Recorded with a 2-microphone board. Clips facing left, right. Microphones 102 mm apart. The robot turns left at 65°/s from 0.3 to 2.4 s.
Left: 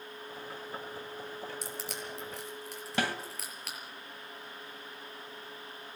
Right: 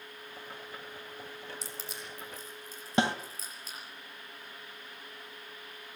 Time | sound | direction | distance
1.6 | crushing | 55° left (ahead or behind) | 6 m
3.0 | a snare drum | 25° right (ahead or behind) | 1.8 m